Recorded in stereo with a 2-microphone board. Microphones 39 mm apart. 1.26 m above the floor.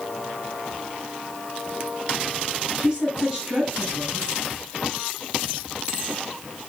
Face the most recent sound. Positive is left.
turn(degrees=-20)  # may be behind; listen again after turning